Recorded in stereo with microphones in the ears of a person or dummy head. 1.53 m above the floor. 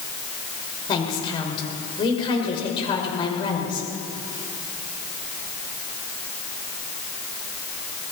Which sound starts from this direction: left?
A woman speaking, at 0.9 s.